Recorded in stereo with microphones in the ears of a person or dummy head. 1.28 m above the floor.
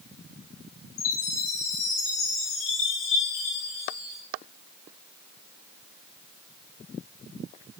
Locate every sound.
1.0 s a chime: 75° left (ahead or behind), 2.5 m